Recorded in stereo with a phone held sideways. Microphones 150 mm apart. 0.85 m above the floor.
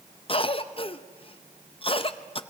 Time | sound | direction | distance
0.3 | a cough | 40° left (ahead or behind) | 0.6 m